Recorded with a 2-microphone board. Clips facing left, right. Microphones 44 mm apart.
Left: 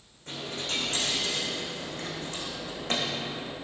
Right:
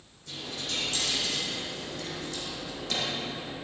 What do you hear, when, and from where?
0.3 s a dropped coin: 35° left (ahead or behind), 4 m